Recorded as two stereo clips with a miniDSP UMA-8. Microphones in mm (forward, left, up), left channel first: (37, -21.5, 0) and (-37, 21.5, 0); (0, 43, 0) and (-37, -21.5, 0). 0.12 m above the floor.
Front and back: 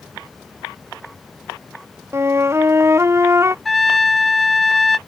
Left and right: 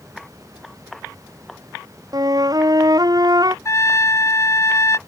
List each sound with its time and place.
2.1 s a flute: 150° right
3.6 s a trumpet: 55° left